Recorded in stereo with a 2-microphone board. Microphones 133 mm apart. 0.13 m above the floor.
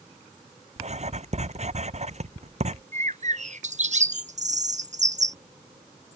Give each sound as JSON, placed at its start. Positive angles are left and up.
{"t": 0.8, "sound": "writing", "side_deg": -55}
{"t": 2.9, "sound": "a bird", "side_deg": -60}